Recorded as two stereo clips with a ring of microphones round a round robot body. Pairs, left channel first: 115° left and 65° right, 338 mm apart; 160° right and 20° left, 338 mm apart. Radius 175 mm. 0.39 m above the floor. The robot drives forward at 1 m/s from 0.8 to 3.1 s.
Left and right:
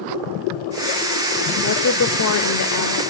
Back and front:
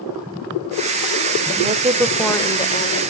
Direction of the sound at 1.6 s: 75° left.